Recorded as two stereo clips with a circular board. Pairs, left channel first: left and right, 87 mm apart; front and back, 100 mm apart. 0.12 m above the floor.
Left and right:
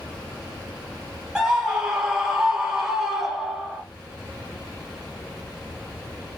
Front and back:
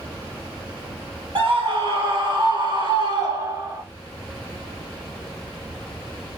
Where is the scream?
170° right, 3 m; by 3.8 s 175° right, 1.6 m.